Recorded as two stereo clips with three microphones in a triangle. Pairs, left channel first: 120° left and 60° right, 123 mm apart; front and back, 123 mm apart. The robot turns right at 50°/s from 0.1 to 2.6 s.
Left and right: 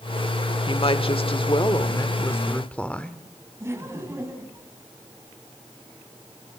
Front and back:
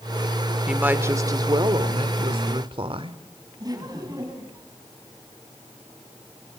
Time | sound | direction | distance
0.7 | a woman speaking | 100° left | 1.3 m
3.6 | laughter | 125° right | 3.5 m